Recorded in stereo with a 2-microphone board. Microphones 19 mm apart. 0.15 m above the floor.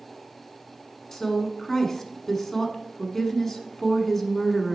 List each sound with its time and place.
1.1 s a woman speaking: 20° left (ahead or behind), 1.1 m